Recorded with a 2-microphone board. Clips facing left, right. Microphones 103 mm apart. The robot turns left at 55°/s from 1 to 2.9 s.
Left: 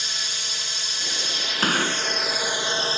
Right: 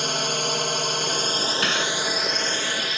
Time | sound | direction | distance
0.0 | a drone | 110° right | ?
1.6 | a gunshot | 35° left (ahead or behind) | ?